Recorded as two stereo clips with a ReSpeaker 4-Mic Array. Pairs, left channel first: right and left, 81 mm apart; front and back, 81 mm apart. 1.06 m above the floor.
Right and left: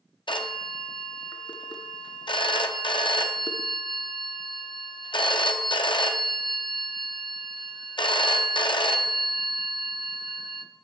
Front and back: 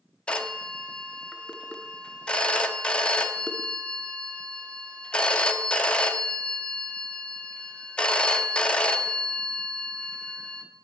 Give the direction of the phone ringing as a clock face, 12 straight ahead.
3 o'clock.